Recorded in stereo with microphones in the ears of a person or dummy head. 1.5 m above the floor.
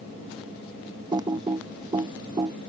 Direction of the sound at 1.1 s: 20° right (ahead or behind).